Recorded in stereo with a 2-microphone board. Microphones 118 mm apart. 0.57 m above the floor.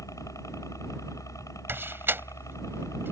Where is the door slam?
20° right (ahead or behind).